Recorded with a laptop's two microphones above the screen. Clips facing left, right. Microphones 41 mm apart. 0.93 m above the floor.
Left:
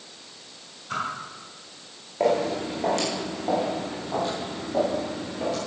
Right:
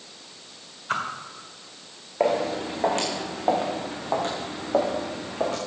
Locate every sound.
0.9 s a whoosh: 60° right (ahead or behind), 1.7 m
2.2 s footsteps: 30° right (ahead or behind), 3 m; by 5.6 s 70° right (ahead or behind), 3.5 m